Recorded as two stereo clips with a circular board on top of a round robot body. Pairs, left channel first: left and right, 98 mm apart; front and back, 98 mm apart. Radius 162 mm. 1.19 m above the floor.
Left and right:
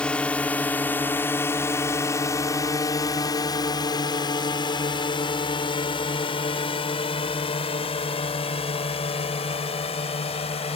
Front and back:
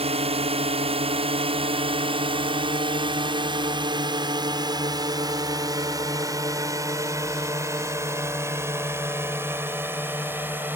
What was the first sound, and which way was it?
A drone, 170° left.